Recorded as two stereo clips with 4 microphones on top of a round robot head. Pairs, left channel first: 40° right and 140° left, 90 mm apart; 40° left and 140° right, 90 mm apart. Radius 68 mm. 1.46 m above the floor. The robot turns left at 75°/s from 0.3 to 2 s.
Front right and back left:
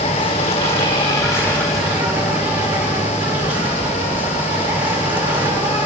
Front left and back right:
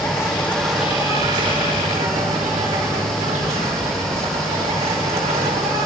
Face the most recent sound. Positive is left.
turn(degrees=-145)